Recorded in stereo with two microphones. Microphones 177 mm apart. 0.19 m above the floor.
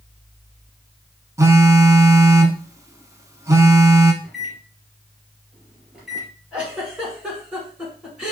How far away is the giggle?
About 2.0 m.